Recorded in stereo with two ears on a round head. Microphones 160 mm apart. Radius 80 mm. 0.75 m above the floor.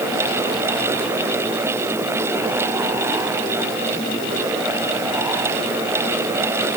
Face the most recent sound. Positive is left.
No sound to turn to.